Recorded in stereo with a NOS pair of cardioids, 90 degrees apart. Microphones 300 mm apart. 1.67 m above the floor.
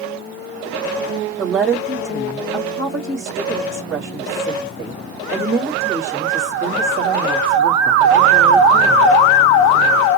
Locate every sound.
1.4 s a woman speaking: 45° right, 3.5 m